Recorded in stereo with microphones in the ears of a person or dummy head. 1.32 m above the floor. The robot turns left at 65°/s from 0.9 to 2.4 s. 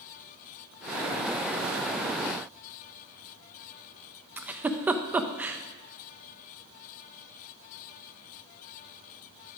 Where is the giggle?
15° right (ahead or behind), 0.5 m.